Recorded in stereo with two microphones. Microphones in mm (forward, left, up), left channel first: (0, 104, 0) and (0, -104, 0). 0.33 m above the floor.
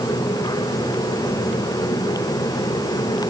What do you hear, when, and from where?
Only background noise.